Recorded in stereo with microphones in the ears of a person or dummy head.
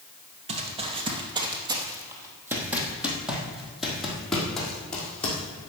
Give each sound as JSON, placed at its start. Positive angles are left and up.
{"t": 0.5, "sound": "running footsteps", "side_deg": -35, "distance_m": 1.8}